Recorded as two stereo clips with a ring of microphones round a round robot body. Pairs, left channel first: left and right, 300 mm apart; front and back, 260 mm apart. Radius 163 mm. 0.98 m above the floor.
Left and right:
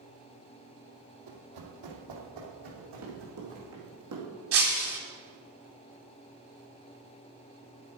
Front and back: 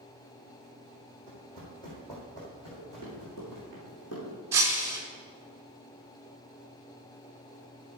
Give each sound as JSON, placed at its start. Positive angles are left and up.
{"t": 1.3, "sound": "running footsteps", "azimuth_deg": -75, "distance_m": 2.5}
{"t": 2.8, "sound": "running footsteps", "azimuth_deg": -45, "distance_m": 4.0}
{"t": 4.5, "sound": "breaking glass", "azimuth_deg": -100, "distance_m": 1.0}